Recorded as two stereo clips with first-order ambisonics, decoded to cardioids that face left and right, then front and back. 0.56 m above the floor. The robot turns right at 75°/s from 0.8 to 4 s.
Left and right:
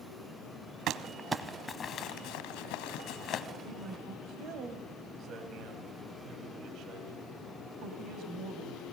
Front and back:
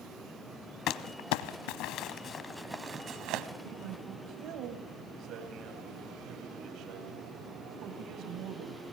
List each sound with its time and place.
0.9 s crumpling: 45° right, 1.0 m; by 3.5 s 155° left, 1.0 m
3.6 s a man speaking: 160° right, 2.5 m; by 8.8 s 135° right, 2.5 m